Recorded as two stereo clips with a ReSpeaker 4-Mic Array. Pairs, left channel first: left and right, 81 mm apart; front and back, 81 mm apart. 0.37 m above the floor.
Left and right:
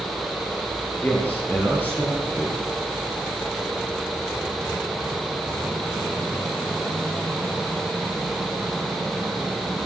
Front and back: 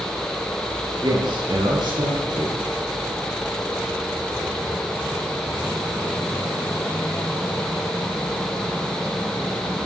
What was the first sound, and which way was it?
A man speaking, 155° left.